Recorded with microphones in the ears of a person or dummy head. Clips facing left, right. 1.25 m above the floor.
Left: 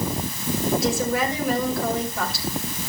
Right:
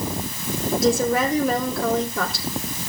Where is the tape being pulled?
I don't hear tape being pulled.